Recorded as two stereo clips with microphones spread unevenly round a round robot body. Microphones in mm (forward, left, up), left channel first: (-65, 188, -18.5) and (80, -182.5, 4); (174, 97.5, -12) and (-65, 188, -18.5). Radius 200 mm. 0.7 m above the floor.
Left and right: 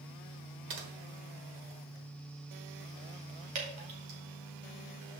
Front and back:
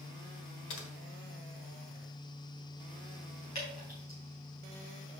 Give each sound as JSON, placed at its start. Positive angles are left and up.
{"t": 0.7, "sound": "typing on a keyboard", "azimuth_deg": -25, "distance_m": 1.4}
{"t": 3.5, "sound": "dripping", "azimuth_deg": -75, "distance_m": 2.5}